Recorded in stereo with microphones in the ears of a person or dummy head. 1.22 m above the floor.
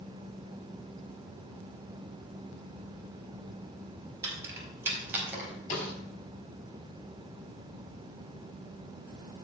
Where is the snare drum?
40° left (ahead or behind), 3.5 m.